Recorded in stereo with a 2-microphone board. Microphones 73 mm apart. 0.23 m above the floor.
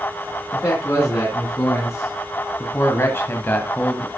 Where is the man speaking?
35° left (ahead or behind), 3.5 m; by 4.1 s 15° left (ahead or behind), 1.6 m.